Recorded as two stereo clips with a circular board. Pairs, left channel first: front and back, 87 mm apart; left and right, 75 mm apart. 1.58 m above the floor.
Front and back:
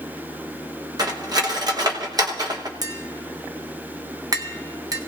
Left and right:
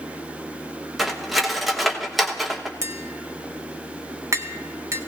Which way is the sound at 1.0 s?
Straight behind.